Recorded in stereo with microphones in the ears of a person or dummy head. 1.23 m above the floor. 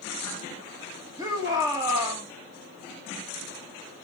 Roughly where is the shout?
Centre.